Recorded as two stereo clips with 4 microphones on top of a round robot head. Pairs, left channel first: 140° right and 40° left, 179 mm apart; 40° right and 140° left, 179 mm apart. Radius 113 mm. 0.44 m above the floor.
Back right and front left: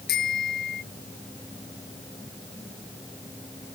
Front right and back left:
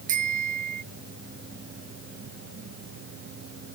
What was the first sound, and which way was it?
A bicycle bell, 175° right.